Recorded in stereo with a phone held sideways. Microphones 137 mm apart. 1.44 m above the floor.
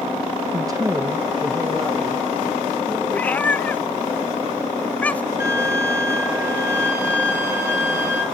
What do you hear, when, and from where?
0.5 s a woman speaking: 30° right (ahead or behind), 1.0 m; by 3.0 s 5° left (ahead or behind), 2 m
3.1 s a cat meowing: 10° left (ahead or behind), 0.6 m
5.4 s a violin: 15° right (ahead or behind), 3 m